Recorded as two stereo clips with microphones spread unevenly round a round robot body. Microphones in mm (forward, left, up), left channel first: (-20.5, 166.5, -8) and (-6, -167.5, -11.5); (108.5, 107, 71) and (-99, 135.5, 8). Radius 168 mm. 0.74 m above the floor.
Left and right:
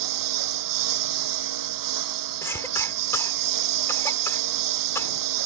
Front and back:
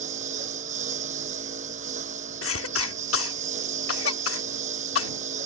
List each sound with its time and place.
0.0 s a lawn mower: 120° right
2.4 s a cough: 10° left